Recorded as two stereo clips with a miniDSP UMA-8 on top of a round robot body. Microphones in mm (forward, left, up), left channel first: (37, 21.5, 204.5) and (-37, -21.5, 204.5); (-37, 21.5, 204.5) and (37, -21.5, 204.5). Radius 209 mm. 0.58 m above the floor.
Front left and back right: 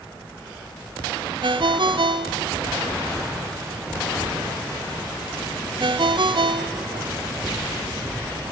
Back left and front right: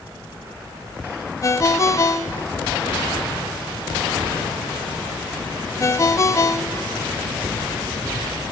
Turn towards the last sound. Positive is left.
turn(degrees=-160)